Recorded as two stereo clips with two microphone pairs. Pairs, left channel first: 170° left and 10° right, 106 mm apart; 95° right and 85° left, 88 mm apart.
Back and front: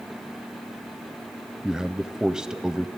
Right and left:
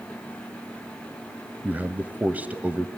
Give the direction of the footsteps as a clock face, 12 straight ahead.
I don't hear footsteps.